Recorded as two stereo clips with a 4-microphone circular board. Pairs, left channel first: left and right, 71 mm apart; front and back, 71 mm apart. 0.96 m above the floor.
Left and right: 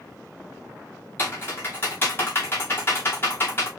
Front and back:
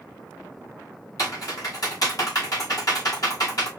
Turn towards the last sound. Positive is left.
turn(degrees=30)